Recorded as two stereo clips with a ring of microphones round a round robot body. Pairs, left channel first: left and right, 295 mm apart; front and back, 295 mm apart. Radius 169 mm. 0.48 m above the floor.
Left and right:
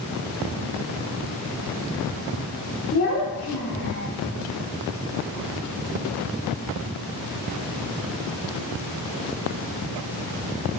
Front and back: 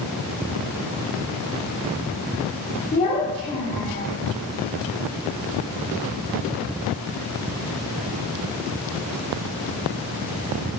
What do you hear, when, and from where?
2.9 s a child speaking: 55° left, 1.2 m